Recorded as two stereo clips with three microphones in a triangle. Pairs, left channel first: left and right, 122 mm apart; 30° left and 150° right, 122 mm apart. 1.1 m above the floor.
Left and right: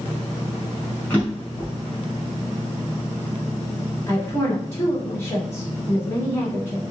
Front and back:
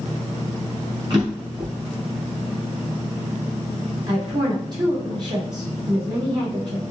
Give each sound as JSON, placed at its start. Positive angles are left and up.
{"t": 1.1, "sound": "a drawer", "azimuth_deg": 165, "distance_m": 2.0}
{"t": 4.1, "sound": "a woman speaking", "azimuth_deg": 155, "distance_m": 1.9}